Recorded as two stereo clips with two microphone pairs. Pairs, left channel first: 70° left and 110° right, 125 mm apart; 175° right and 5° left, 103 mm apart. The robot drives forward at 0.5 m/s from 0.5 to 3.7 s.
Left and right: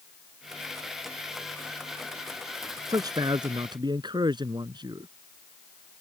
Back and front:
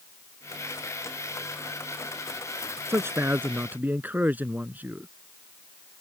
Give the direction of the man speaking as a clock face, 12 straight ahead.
2 o'clock.